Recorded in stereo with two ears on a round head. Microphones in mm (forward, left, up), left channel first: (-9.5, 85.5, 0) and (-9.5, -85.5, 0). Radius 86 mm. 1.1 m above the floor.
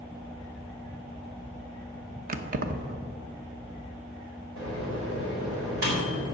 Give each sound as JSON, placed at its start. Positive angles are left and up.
{"t": 2.3, "sound": "keys jangling", "side_deg": -45, "distance_m": 0.8}
{"t": 4.6, "sound": "a microwave", "side_deg": -80, "distance_m": 4.0}